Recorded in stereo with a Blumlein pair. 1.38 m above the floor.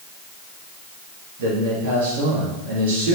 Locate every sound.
1.4 s a man speaking: 55° right, 2.5 m